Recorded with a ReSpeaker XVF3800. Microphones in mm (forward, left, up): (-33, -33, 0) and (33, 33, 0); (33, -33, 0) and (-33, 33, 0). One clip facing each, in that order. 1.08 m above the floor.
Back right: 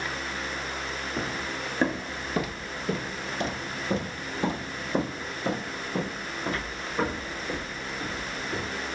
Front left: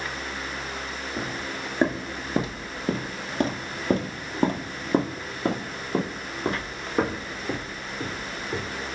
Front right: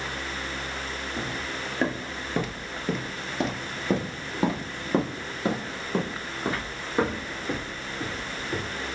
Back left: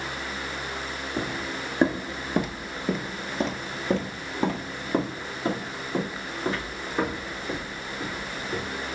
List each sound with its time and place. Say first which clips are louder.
1.2 s footsteps: front left 1 dB, back left 4 dB; 130° left, 1.2 m; by 8.7 s 25° left, 3.5 m